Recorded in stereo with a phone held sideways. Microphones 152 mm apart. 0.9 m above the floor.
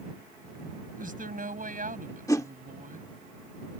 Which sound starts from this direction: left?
A whoosh, at 2.3 s.